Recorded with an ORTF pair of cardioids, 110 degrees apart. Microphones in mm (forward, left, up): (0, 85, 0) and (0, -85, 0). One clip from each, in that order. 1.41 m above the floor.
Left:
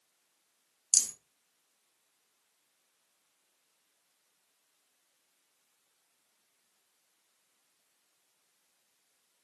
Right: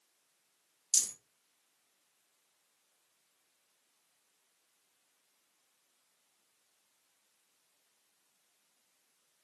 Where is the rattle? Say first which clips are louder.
Left 3 dB; 40° left, 1.6 m.